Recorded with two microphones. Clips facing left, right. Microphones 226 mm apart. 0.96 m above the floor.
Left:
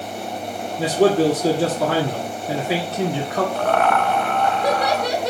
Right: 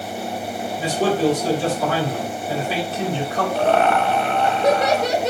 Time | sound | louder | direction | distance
0.8 | a man speaking | left 4 dB | 75° left (ahead or behind) | 1.6 m
3.5 | laughter | right 4 dB | 25° right (ahead or behind) | 0.8 m